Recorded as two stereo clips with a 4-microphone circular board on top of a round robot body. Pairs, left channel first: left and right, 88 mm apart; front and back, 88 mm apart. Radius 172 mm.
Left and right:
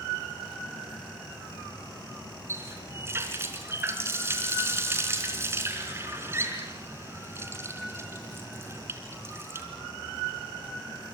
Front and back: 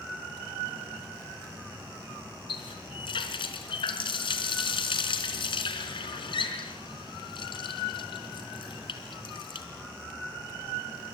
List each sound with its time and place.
2.5 s a running tap: 30° right, 3.5 m